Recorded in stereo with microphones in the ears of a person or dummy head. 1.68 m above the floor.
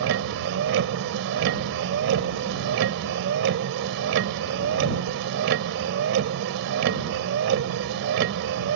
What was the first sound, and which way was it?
A vehicle, 65° right (ahead or behind).